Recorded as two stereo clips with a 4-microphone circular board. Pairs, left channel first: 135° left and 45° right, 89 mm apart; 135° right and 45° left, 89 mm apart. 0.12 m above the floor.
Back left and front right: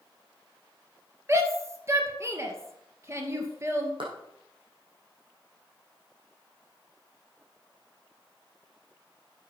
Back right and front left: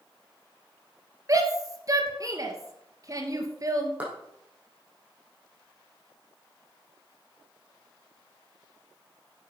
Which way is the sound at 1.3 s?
5° left.